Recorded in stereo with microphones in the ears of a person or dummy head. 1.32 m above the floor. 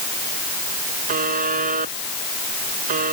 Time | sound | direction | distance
1.1 | a buzzer | 45° right (ahead or behind) | ?